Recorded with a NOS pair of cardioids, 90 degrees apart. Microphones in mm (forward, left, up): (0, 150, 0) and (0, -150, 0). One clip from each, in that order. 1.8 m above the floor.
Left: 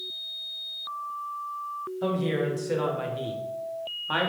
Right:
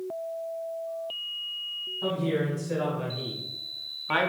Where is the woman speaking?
50° left, 1.6 m; by 4.3 s 15° right, 0.5 m.